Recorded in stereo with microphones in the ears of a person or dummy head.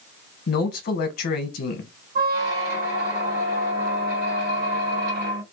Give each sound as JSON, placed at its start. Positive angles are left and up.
{"t": 0.5, "sound": "a man speaking", "side_deg": 55, "distance_m": 0.8}
{"t": 2.1, "sound": "a squeak", "side_deg": -60, "distance_m": 1.8}